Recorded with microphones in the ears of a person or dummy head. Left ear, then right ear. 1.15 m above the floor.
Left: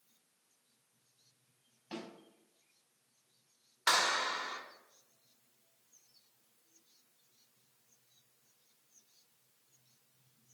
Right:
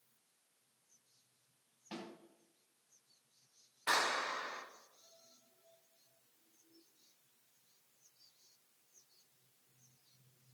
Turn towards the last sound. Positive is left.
turn(degrees=45)  # may be behind; listen again after turning